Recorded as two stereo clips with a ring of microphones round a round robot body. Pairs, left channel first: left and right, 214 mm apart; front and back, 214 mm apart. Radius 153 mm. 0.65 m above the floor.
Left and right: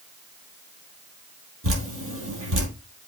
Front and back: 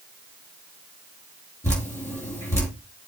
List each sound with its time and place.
1.6 s dripping: 80° right, 4.5 m